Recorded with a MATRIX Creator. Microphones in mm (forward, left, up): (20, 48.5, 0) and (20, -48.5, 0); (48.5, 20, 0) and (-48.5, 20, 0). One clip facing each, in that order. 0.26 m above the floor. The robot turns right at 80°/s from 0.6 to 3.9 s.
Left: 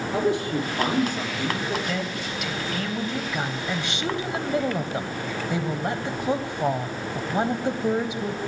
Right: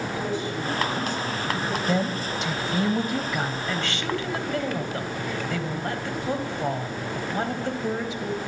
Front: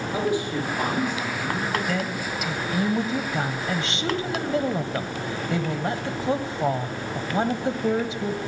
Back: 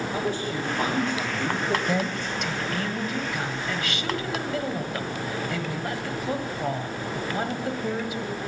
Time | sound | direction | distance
0.1 | a man speaking | 80° left | 8 m
1.9 | a woman speaking | 125° right | 1.4 m